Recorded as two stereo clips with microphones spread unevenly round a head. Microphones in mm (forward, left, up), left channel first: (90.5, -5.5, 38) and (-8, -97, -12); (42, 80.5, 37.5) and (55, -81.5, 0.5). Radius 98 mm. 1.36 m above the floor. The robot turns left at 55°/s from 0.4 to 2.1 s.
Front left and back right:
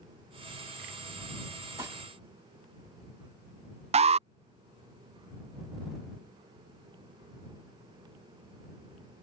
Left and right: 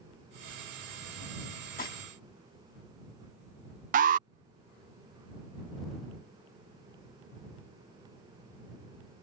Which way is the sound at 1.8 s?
145° left.